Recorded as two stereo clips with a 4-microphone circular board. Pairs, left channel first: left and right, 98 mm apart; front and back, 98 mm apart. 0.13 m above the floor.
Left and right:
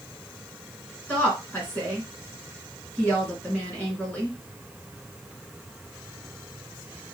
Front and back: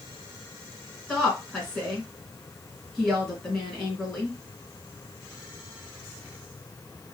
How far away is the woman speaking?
About 1.5 m.